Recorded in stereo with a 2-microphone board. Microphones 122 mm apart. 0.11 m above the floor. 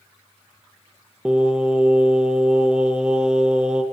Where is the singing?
5° right (ahead or behind), 2.0 m.